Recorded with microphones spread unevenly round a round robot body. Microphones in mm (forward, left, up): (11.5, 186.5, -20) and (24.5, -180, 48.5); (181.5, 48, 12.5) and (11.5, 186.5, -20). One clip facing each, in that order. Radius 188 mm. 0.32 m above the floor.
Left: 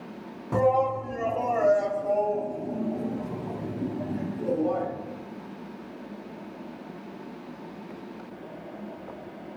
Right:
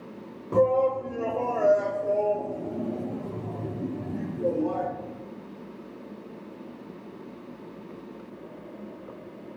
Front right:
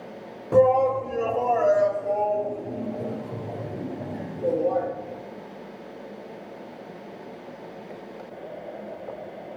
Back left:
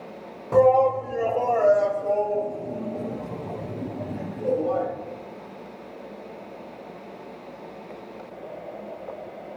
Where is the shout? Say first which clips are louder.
Right 2 dB, back left 1 dB; 45° left, 1.4 m; by 4.9 s 170° left, 4 m.